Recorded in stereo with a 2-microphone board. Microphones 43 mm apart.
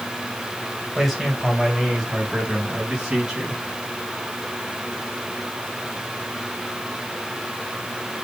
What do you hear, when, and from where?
0.9 s a man speaking: centre (ahead or behind), 3 m; by 3.6 s 15° right (ahead or behind), 4 m